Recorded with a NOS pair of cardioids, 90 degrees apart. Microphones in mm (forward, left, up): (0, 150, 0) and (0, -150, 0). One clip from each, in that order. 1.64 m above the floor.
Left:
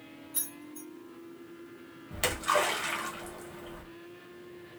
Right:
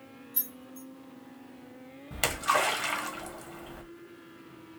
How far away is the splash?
About 1.6 m.